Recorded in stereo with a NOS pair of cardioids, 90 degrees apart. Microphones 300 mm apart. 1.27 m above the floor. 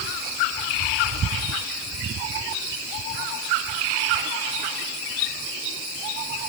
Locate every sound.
Only background noise.